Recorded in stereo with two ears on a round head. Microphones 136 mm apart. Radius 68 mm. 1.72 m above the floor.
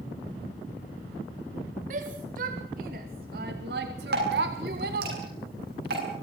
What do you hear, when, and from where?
1.9 s a shout: 55° right (ahead or behind), 3.5 m; by 5.1 s 60° right (ahead or behind), 1.5 m
4.1 s dripping: 70° right (ahead or behind), 9 m